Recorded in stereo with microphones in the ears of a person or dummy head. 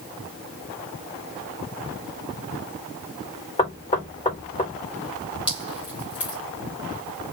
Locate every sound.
3.6 s knocking: 25° left (ahead or behind), 2.5 m
5.5 s dripping: 10° right (ahead or behind), 2 m